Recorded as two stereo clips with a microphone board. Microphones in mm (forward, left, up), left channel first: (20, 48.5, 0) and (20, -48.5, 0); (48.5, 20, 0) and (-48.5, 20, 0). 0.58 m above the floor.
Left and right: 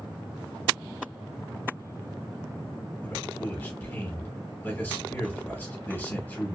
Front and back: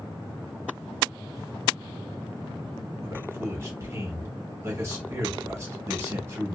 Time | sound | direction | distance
3.0 | a man speaking | 145° left | 1.4 m